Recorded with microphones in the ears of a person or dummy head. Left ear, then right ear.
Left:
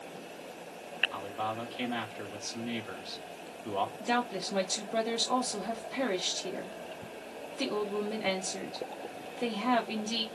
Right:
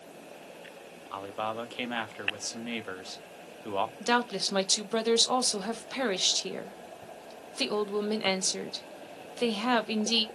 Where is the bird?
No bird in this recording.